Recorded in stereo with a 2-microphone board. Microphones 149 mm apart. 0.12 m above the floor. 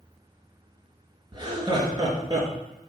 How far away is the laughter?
About 2 m.